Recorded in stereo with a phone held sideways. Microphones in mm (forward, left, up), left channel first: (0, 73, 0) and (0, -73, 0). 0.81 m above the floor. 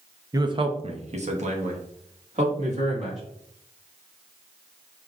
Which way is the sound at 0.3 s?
25° right (ahead or behind).